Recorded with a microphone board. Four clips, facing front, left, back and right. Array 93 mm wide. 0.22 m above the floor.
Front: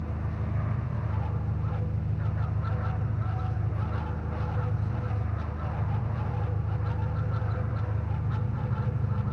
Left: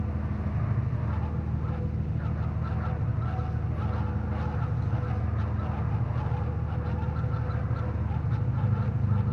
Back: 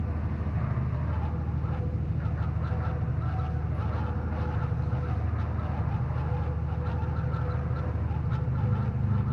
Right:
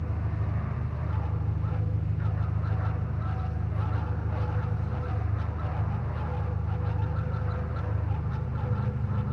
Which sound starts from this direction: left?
An engine running, at 0.0 s.